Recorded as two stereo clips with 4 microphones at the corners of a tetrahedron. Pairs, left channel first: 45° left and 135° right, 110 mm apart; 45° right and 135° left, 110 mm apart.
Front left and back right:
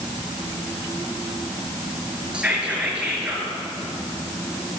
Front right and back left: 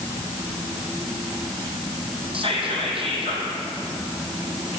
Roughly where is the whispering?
Behind left.